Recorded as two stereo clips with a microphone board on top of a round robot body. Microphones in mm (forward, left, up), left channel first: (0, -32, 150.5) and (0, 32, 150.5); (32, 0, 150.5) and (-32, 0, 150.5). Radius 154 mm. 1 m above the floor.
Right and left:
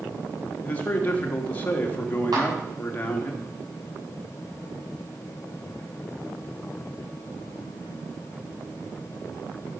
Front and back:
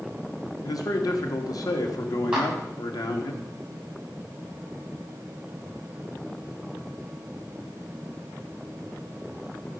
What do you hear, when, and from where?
0.6 s a man speaking: 25° right, 1.8 m
2.3 s a clap: 105° left, 6 m